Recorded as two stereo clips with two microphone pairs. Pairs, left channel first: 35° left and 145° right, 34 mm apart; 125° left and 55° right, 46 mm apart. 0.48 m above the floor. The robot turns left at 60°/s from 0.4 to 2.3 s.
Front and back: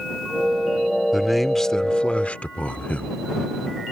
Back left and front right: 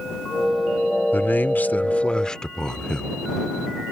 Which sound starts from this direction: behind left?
A man speaking, at 1.1 s.